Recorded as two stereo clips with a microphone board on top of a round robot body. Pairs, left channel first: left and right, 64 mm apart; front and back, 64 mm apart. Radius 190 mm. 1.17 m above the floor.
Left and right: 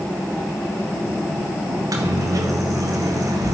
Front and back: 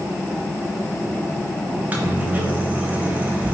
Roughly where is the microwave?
Behind right.